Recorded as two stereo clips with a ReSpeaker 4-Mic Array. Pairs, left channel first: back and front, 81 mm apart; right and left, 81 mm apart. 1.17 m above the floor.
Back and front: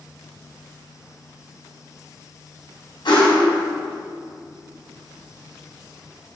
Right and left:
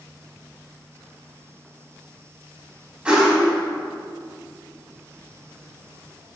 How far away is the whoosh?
About 2.5 m.